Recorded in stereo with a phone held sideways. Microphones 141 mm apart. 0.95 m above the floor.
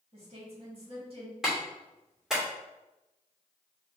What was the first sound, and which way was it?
A woman speaking, 45° right (ahead or behind).